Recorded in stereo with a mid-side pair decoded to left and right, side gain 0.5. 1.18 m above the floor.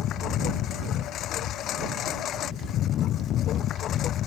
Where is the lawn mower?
65° left; by 4.3 s 60° left.